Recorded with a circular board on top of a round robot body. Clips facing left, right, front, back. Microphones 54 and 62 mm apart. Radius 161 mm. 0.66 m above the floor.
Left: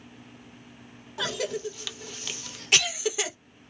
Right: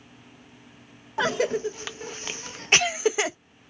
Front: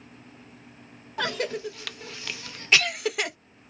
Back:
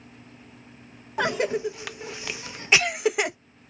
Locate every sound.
1.2 s a cough: 120° right, 0.6 m